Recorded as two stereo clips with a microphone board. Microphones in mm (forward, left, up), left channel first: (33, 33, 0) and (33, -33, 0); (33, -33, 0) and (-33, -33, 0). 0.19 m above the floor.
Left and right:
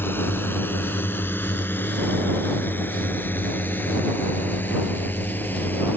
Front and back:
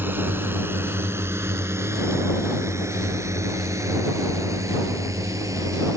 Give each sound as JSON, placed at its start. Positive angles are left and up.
{"t": 0.0, "sound": "a drone", "azimuth_deg": 135}